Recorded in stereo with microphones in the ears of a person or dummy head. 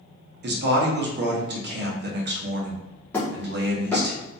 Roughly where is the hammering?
Centre.